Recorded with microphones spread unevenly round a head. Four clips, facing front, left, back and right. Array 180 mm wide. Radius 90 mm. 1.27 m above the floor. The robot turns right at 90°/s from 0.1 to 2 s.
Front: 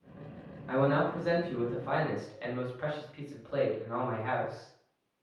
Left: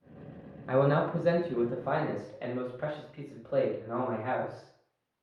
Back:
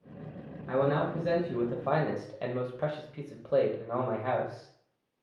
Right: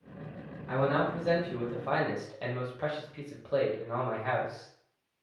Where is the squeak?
I don't hear a squeak.